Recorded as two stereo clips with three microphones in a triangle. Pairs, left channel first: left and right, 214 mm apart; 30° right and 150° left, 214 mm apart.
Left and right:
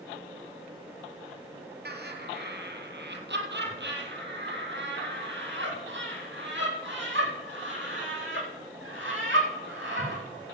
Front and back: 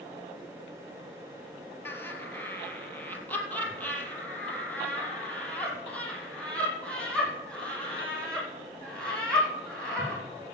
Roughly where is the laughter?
Right.